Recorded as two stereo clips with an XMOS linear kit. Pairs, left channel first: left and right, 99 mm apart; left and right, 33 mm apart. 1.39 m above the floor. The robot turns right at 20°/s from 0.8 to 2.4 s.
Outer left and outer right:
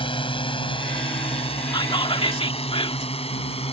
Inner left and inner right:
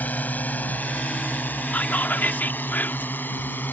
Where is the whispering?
55° left (ahead or behind); by 3.1 s 70° left (ahead or behind).